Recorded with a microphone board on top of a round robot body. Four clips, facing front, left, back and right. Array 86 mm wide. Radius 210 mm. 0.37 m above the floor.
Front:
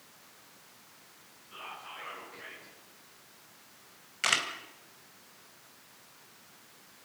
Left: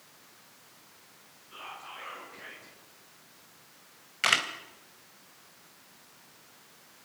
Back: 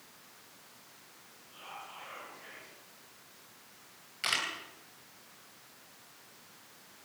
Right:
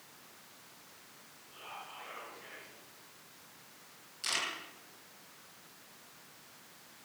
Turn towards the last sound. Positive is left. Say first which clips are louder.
# left 10 dB, front 4 dB
turn(degrees=75)